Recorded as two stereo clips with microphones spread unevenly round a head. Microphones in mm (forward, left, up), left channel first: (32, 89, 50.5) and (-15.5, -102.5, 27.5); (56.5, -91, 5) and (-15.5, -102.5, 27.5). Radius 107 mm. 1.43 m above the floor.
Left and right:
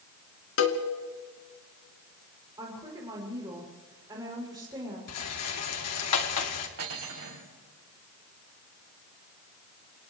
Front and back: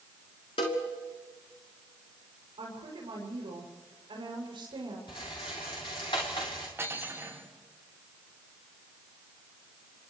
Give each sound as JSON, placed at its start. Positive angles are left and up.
{"t": 0.6, "sound": "a cowbell", "azimuth_deg": 55, "distance_m": 2.0}
{"t": 2.6, "sound": "a woman speaking", "azimuth_deg": -175, "distance_m": 7.5}
{"t": 5.1, "sound": "a rattle", "azimuth_deg": 75, "distance_m": 2.5}
{"t": 6.8, "sound": "cutlery clinking", "azimuth_deg": -115, "distance_m": 6.0}